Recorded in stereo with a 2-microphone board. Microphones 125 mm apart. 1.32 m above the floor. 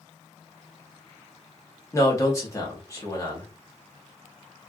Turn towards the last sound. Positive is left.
turn(degrees=25)  # may be behind; listen again after turning